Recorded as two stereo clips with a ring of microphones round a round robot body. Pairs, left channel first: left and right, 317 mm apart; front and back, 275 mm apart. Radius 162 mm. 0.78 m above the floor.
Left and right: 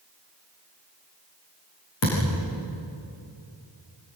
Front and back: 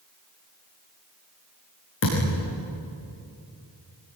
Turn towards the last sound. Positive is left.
turn(degrees=45)